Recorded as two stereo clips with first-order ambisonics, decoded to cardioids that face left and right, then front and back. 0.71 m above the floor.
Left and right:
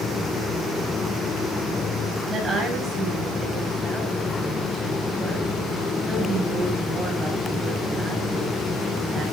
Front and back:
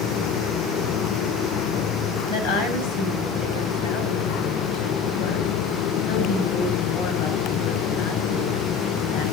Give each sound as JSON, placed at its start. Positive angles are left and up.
{"t": 2.3, "sound": "a woman speaking", "azimuth_deg": -5, "distance_m": 8.5}